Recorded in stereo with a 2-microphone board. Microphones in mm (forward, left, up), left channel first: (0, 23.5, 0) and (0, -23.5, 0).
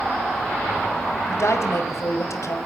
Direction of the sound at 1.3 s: 70° left (ahead or behind).